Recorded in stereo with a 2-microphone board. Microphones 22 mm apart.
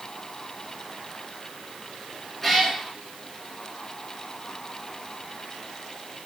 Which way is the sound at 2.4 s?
15° left (ahead or behind).